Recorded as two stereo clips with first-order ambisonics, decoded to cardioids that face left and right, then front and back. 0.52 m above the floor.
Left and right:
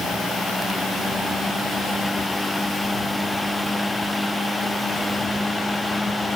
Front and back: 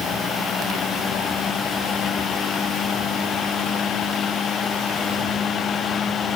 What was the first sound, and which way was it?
Only background noise.